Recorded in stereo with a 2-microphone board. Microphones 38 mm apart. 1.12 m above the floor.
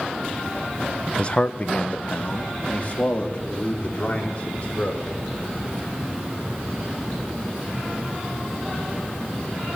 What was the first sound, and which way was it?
A man speaking, 25° left (ahead or behind).